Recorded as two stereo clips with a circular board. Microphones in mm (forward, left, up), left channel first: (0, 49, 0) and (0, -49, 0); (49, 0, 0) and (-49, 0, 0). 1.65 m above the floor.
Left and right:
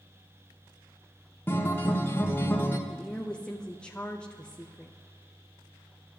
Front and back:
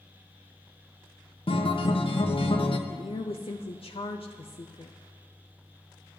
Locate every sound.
1.5 s a guitar: 25° left, 1.3 m
2.9 s a woman speaking: 10° left, 0.7 m